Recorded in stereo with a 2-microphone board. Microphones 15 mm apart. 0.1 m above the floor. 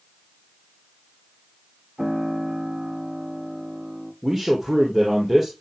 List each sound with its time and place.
2.0 s a piano: 35° right (ahead or behind), 6.5 m
4.2 s a man speaking: 25° right (ahead or behind), 3 m